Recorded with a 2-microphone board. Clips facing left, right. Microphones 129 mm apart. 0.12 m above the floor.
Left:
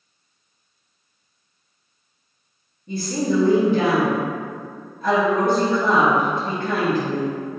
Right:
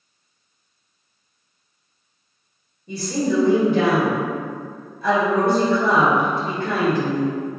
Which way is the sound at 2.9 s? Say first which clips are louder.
Even; 40° left (ahead or behind).